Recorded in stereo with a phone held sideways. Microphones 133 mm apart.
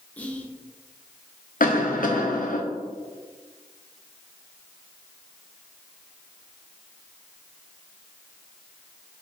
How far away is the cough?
About 0.8 m.